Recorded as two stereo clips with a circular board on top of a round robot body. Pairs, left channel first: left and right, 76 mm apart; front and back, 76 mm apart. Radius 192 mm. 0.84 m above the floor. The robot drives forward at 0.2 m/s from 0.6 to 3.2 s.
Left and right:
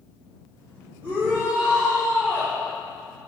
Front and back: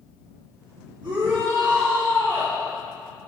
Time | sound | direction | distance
1.0 | a shout | 150° right | 3.5 m